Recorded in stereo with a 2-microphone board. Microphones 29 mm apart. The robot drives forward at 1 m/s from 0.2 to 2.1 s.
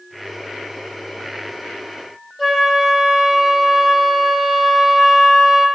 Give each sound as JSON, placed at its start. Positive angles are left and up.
{"t": 2.4, "sound": "a flute", "side_deg": 10, "distance_m": 1.9}